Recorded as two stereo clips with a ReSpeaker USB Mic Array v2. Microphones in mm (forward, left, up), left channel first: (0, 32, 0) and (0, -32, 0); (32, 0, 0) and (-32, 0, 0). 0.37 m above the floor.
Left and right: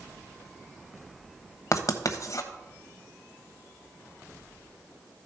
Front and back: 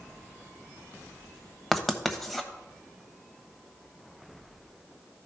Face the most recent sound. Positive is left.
turn(degrees=90)